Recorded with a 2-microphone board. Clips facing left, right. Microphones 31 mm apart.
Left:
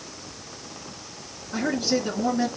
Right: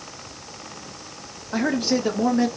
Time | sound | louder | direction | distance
1.5 | a man speaking | right 3 dB | 50° right (ahead or behind) | 1.1 m